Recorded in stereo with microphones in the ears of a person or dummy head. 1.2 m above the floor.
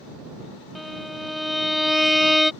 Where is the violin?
Centre (ahead or behind).